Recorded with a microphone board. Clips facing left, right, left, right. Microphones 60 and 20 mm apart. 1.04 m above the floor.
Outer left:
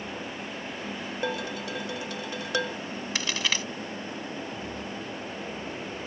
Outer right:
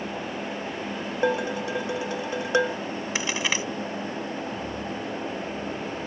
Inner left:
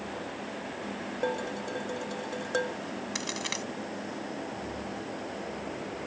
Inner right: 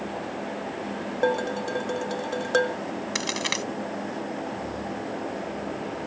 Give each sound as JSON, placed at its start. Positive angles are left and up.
{"t": 1.2, "sound": "dishes clattering", "side_deg": -25}
{"t": 3.1, "sound": "a crack", "side_deg": -20}